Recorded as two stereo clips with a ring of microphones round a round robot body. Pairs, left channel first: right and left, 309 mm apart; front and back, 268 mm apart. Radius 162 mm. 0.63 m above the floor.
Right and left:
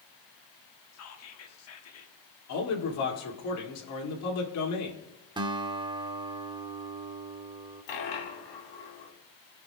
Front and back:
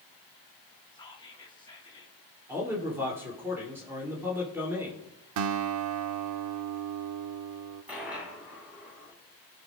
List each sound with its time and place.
0.9 s whispering: 70° right, 1.3 m
2.5 s a man speaking: 100° right, 2 m
5.4 s a guitar: 165° left, 0.6 m
7.9 s a dropped coin: 95° right, 2 m